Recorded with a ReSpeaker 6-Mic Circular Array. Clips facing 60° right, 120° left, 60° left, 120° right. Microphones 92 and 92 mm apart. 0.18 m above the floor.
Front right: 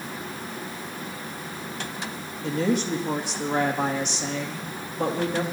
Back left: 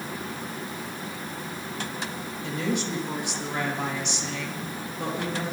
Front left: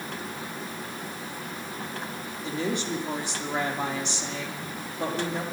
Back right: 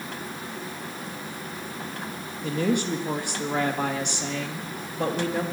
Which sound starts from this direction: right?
A woman speaking, at 2.4 s.